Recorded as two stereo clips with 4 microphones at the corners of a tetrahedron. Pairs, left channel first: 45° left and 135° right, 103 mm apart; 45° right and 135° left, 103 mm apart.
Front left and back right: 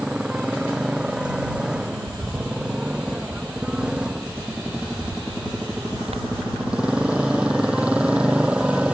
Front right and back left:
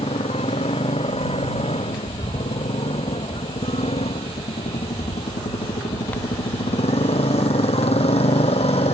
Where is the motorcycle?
55° right.